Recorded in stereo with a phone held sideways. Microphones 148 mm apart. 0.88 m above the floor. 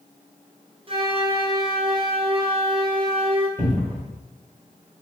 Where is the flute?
40° right (ahead or behind), 0.6 m.